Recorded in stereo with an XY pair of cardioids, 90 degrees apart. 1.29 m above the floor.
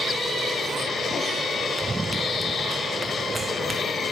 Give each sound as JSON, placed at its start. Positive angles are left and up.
{"t": 1.8, "sound": "running footsteps", "azimuth_deg": -25}